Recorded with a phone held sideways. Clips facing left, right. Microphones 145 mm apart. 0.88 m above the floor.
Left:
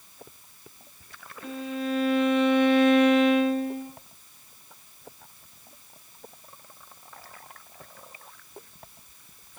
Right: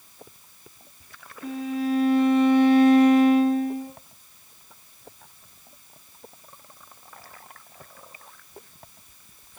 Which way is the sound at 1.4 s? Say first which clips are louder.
Right 4 dB; 35° right (ahead or behind).